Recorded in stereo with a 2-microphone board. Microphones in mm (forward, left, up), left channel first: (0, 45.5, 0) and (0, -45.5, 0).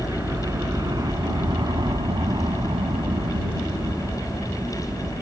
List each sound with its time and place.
0.0 s a helicopter: 30° right (ahead or behind); by 5.2 s 25° right (ahead or behind)